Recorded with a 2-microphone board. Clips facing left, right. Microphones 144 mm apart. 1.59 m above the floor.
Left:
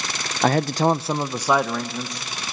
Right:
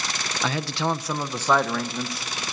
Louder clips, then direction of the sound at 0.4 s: Left 8 dB; 50° left (ahead or behind).